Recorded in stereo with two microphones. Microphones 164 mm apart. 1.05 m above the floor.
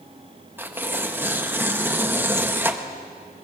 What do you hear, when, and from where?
0.6 s tearing paper: 10° right (ahead or behind), 1.2 m